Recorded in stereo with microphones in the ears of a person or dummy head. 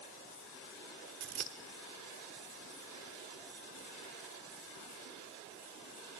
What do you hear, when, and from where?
1.2 s scissors: 50° right (ahead or behind), 1.4 m